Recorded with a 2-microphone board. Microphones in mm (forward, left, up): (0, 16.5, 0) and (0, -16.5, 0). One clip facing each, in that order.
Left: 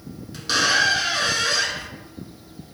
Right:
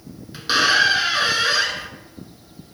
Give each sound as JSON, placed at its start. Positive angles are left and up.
{"t": 0.3, "sound": "a squeak", "side_deg": -25, "distance_m": 0.8}